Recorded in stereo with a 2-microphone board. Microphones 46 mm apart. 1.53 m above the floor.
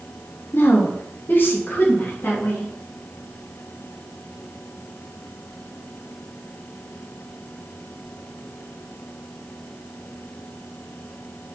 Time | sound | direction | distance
0.5 | a woman speaking | 50° left (ahead or behind) | 1.6 m